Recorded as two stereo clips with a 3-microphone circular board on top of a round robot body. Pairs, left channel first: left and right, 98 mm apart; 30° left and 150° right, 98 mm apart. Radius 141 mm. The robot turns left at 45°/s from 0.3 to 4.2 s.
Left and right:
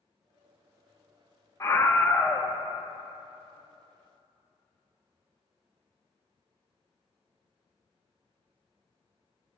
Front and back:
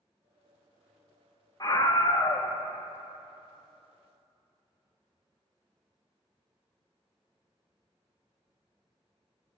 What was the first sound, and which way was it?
A scream, 50° left.